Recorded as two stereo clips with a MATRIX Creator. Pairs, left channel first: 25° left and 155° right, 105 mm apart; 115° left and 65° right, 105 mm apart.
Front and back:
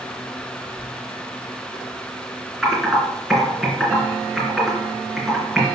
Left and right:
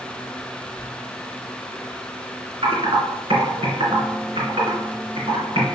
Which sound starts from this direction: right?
Typing on a keyboard, at 2.6 s.